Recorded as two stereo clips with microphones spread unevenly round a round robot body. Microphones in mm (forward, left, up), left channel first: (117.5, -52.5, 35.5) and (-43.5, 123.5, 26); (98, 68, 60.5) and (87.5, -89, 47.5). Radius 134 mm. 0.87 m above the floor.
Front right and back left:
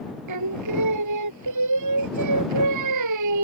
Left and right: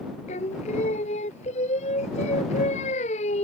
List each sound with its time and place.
0.3 s singing: 150° left